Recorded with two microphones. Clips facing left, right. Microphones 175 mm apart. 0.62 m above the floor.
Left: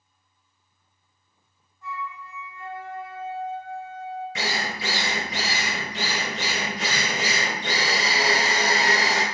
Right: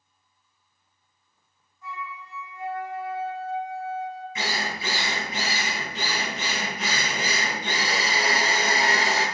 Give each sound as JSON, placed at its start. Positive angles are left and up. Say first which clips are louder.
{"t": 1.8, "sound": "a flute", "louder": "left 2 dB", "side_deg": 60, "distance_m": 1.9}
{"t": 4.3, "sound": "a drill", "louder": "left 1 dB", "side_deg": 85, "distance_m": 0.8}